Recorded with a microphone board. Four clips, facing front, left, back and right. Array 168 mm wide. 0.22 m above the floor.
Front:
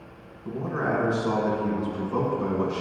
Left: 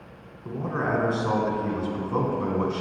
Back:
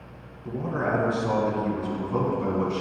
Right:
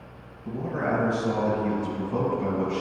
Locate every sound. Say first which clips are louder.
0.5 s a man speaking: even, even; 95° left, 2 m